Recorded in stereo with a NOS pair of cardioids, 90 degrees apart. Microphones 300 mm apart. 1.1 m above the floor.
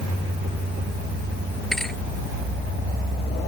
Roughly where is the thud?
Ahead.